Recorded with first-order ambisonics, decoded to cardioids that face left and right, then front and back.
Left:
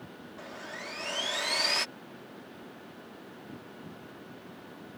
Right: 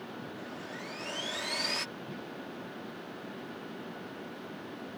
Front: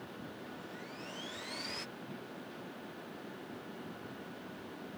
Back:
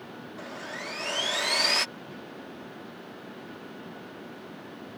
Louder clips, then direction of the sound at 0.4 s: Left 6 dB, back 10 dB; 165° left.